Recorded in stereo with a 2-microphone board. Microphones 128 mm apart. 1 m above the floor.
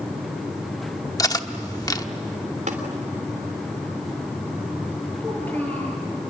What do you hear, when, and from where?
1.2 s cutlery clinking: 30° left (ahead or behind), 1.0 m
2.7 s tapping: 70° right (ahead or behind), 3 m
5.2 s a child speaking: 10° left (ahead or behind), 10 m